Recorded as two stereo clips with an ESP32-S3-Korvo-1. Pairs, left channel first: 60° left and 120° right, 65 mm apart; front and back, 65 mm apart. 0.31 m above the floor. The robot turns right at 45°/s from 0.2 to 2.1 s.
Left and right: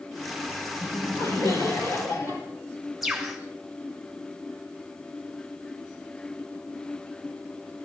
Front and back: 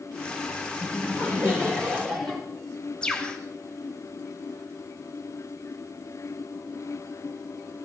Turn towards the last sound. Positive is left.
turn(degrees=-35)